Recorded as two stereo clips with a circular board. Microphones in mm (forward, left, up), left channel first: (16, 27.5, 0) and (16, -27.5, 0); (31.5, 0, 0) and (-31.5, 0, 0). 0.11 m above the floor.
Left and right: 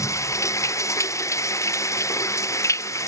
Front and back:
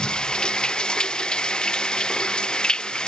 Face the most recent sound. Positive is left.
turn(degrees=75)